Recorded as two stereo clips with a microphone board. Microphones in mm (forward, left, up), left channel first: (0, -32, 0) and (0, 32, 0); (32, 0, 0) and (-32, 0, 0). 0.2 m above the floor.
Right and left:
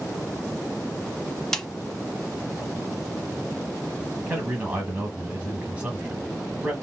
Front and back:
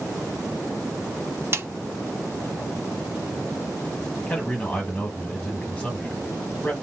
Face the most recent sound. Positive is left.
turn(degrees=45)